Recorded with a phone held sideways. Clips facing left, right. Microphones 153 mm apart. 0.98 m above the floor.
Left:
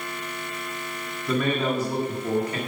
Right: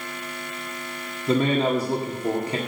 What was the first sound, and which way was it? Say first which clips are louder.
A man speaking: right 4 dB; 30° right (ahead or behind).